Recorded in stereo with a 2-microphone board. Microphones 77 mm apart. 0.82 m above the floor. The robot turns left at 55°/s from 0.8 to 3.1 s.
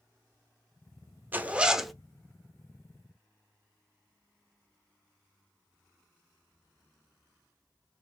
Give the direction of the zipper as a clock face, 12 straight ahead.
5 o'clock.